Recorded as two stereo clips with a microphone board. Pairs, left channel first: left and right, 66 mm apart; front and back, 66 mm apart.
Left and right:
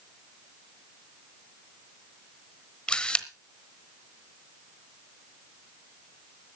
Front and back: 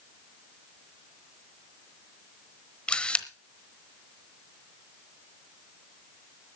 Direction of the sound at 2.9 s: 40° left.